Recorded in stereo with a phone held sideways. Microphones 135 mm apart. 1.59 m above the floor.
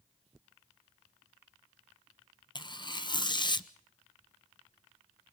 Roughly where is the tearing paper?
Left.